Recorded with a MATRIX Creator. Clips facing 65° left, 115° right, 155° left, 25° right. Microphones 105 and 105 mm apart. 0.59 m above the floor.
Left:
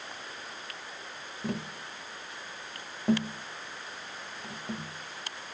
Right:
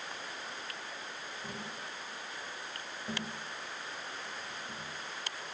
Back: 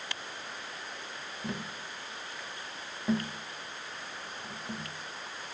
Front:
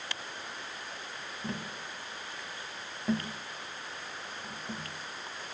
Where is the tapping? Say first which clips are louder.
Left 10 dB, even; 70° left, 0.7 m.